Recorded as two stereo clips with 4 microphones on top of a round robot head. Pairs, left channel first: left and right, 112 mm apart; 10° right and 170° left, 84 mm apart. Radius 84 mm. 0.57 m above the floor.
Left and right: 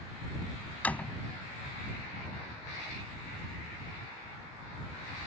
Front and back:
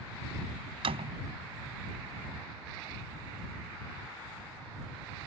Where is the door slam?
170° left.